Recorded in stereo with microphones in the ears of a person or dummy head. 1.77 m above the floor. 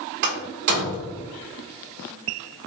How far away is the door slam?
About 2 m.